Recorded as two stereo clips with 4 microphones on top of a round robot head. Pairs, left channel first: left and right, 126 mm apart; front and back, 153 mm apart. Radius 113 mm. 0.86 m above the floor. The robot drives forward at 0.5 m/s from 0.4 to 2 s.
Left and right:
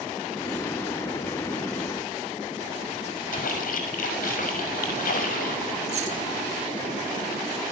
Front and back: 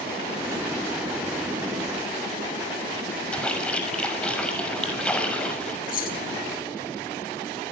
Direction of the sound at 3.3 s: 80° left.